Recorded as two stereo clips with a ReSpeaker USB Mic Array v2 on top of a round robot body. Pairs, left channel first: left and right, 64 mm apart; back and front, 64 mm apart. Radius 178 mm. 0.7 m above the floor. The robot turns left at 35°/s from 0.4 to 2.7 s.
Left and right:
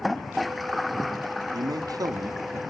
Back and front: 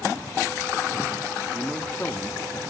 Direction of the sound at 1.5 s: 95° right.